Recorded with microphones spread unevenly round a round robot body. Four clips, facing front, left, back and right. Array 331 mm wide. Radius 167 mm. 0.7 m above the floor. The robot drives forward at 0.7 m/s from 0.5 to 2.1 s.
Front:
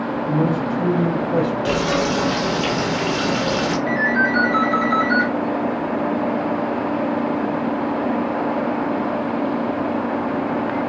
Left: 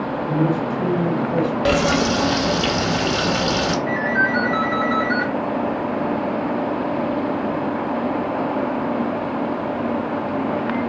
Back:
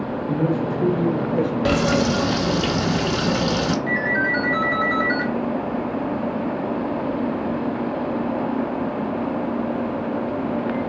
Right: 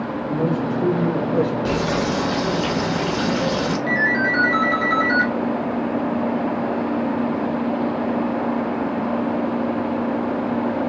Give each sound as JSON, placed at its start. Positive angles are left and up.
{"t": 0.3, "sound": "a man speaking", "azimuth_deg": 10, "distance_m": 2.5}
{"t": 1.6, "sound": "frying", "azimuth_deg": 115, "distance_m": 0.5}
{"t": 3.9, "sound": "a ringtone", "azimuth_deg": -125, "distance_m": 1.1}